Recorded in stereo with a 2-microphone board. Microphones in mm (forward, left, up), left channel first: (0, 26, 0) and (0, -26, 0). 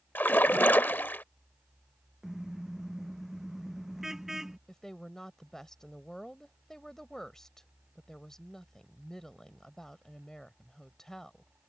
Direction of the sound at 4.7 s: 10° left (ahead or behind).